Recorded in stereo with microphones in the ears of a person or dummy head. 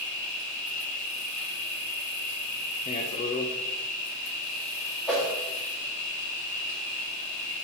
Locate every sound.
0.0 s an insect: 40° left (ahead or behind), 2.5 m
2.9 s a man speaking: 30° left (ahead or behind), 0.7 m
5.1 s a whoosh: centre (ahead or behind), 1.8 m